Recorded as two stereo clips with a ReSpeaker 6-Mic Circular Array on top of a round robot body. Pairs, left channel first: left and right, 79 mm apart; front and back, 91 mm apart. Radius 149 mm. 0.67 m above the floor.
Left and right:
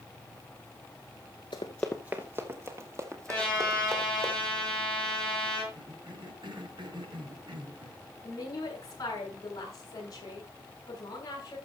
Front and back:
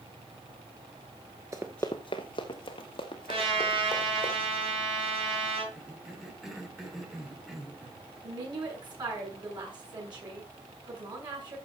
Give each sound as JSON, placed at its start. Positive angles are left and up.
{"t": 1.5, "sound": "running footsteps", "azimuth_deg": 120, "distance_m": 0.7}
{"t": 3.3, "sound": "a trumpet", "azimuth_deg": 165, "distance_m": 7.5}
{"t": 5.7, "sound": "a cough", "azimuth_deg": -90, "distance_m": 4.0}
{"t": 8.2, "sound": "a woman speaking", "azimuth_deg": 140, "distance_m": 7.0}